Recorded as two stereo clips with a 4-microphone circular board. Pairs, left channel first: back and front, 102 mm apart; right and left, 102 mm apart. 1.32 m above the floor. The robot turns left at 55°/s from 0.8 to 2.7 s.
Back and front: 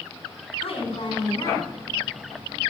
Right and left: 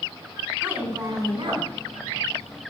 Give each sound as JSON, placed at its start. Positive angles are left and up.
{"t": 0.6, "sound": "a woman speaking", "azimuth_deg": 165, "distance_m": 5.0}